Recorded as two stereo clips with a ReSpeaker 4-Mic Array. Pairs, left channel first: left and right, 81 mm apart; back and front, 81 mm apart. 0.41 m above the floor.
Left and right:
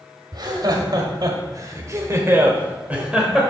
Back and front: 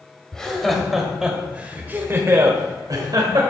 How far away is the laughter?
About 1.9 m.